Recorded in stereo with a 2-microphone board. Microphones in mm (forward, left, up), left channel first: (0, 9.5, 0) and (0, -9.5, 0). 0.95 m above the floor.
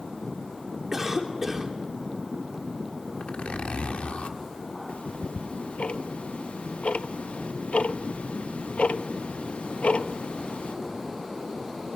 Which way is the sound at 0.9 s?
20° right (ahead or behind).